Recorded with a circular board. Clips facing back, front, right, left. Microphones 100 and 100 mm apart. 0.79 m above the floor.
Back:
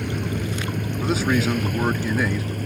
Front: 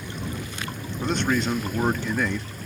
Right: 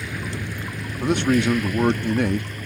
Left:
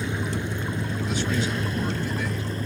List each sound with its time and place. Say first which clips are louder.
0.0 s a vehicle: back 7 dB, left 3 dB; 155° left; by 2.7 s 150° left
1.0 s a man speaking: back 2 dB, right 9 dB; 95° right